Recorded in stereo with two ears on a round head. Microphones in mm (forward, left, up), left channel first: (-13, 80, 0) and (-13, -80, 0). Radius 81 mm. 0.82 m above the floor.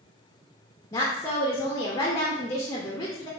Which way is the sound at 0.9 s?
15° left (ahead or behind).